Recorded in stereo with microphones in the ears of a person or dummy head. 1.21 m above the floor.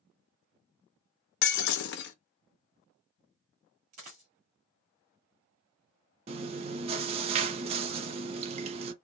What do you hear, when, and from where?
1.4 s breaking glass: 65° left (ahead or behind), 0.7 m
3.9 s a dropped coin: 45° right (ahead or behind), 1.8 m
6.3 s chewing: 30° right (ahead or behind), 0.6 m